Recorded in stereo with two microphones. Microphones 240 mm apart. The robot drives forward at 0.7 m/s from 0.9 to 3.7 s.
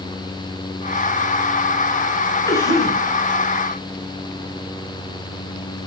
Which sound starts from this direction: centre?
A cough, at 2.5 s.